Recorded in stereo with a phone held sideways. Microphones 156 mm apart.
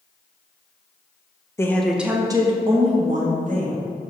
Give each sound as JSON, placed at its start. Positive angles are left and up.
{"t": 1.6, "sound": "a woman speaking", "side_deg": 15, "distance_m": 1.1}